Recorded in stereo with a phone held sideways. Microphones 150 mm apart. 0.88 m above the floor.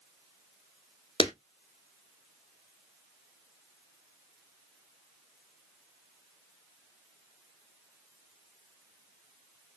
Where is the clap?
35° left (ahead or behind), 0.8 m.